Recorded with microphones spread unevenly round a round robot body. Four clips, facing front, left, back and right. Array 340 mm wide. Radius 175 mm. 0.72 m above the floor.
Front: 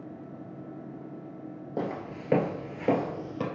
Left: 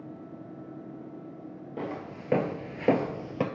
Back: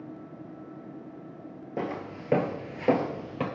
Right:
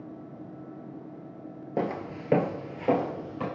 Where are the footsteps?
70° right, 0.8 m; by 3.4 s 90° left, 0.9 m.